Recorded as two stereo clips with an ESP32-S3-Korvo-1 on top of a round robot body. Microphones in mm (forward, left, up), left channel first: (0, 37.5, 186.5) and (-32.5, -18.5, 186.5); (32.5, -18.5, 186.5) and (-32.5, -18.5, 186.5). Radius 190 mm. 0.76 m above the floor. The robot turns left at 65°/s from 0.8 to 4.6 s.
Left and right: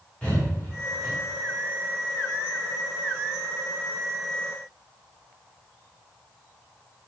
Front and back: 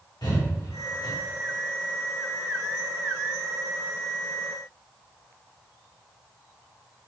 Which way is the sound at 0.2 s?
15° right.